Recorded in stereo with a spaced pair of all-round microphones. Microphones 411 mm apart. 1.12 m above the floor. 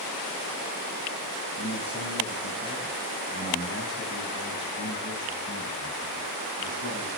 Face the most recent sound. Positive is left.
turn(degrees=25)  # may be behind; listen again after turning